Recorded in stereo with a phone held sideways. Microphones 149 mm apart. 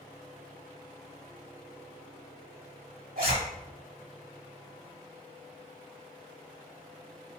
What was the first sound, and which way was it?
A zipper, 80° right.